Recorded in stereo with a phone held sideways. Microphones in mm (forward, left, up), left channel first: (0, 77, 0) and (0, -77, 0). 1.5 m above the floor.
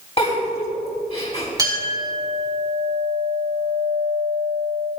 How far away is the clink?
About 5 m.